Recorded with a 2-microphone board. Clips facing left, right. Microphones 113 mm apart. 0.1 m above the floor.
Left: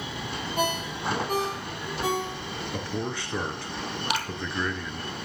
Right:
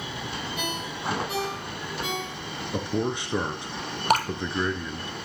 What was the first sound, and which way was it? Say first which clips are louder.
A ringtone: left 4 dB; 40° left (ahead or behind).